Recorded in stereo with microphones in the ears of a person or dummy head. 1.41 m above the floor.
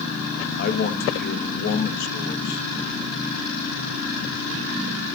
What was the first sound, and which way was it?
A man speaking, 50° left (ahead or behind).